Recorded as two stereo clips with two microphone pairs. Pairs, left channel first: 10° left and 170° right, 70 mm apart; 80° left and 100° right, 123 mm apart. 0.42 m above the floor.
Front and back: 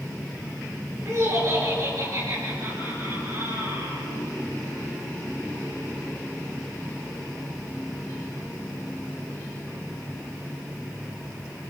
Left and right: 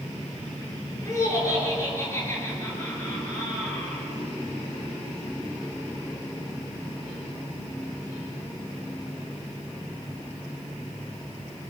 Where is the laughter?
140° left, 8.5 m; by 4.1 s 150° left, 9.5 m.